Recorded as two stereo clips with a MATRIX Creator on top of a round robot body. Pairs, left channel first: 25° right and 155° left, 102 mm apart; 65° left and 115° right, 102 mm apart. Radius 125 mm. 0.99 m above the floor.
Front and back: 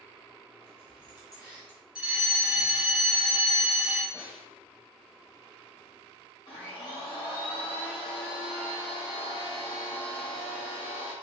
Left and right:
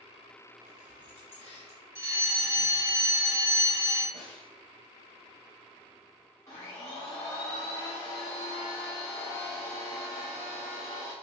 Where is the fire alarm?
135° right, 1.6 m.